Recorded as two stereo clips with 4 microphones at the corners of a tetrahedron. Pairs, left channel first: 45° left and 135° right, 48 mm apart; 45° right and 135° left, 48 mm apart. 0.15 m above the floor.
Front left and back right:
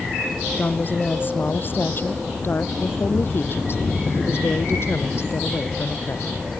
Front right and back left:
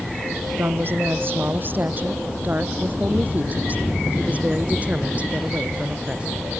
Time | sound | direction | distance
0.6 | a woman speaking | 95° left | ?